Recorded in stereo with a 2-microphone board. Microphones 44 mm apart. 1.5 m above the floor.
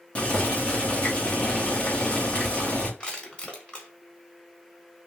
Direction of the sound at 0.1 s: 30° left (ahead or behind).